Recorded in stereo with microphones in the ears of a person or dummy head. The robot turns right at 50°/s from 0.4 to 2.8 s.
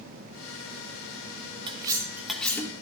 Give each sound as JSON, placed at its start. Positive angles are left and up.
{"t": 1.7, "sound": "cutlery clinking", "azimuth_deg": -35, "distance_m": 0.9}